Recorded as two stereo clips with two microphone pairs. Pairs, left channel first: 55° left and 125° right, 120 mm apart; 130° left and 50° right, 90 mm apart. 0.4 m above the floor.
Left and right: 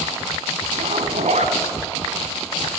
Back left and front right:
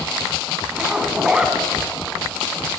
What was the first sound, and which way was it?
A zipper, 130° right.